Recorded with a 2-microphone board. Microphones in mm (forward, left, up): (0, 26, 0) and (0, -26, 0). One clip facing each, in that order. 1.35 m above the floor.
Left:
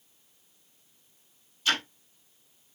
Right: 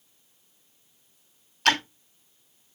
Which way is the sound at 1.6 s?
70° right (ahead or behind).